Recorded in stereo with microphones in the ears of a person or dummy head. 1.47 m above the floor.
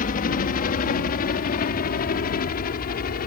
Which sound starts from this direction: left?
A helicopter, at 0.0 s.